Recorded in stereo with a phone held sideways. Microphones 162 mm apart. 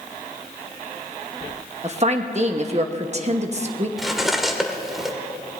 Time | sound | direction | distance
1.8 | a woman speaking | 45° right (ahead or behind) | 1.1 m
4.0 | cutlery clinking | centre (ahead or behind) | 1.5 m